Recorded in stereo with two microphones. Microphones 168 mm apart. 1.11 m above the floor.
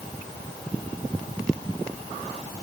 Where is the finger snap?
I don't hear a finger snap.